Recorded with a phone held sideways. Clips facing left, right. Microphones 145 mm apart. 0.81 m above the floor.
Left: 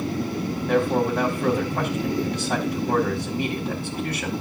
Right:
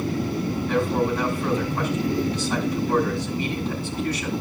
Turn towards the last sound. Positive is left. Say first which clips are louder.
# left 2 dB
turn(degrees=65)  # may be behind; listen again after turning